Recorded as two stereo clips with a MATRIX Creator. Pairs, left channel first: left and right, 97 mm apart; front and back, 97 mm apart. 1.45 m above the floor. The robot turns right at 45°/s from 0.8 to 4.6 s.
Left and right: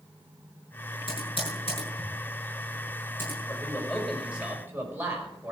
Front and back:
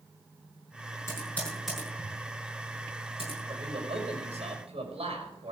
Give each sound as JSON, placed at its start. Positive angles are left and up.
{"t": 1.1, "sound": "typing on a keyboard", "azimuth_deg": 60, "distance_m": 8.0}
{"t": 3.5, "sound": "a man speaking", "azimuth_deg": 155, "distance_m": 5.5}